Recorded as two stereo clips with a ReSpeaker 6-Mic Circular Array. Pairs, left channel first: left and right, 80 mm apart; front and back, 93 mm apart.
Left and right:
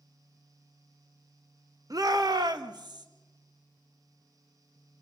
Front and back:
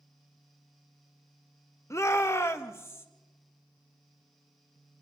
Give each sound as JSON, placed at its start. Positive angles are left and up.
{"t": 1.9, "sound": "a shout", "azimuth_deg": -55, "distance_m": 0.9}